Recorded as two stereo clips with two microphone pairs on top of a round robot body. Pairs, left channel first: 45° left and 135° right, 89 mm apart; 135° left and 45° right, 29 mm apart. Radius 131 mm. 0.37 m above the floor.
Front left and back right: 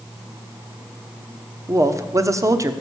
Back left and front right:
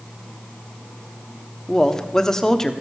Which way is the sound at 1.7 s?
160° right.